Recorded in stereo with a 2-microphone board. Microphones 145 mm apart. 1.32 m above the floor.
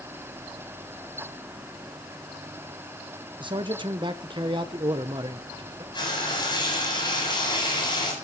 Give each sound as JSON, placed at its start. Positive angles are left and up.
{"t": 3.4, "sound": "a man speaking", "side_deg": -35, "distance_m": 1.0}
{"t": 5.9, "sound": "frying", "side_deg": 30, "distance_m": 7.5}